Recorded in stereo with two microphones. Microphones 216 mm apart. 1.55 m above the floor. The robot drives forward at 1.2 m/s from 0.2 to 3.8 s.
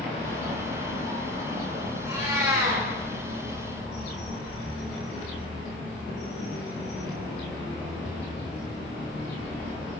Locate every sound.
2.0 s a cat meowing: 15° right (ahead or behind), 5.5 m